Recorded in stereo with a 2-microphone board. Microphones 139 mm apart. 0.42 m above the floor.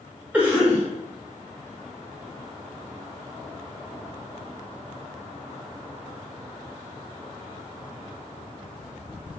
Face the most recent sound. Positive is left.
turn(degrees=-10)  # may be behind; listen again after turning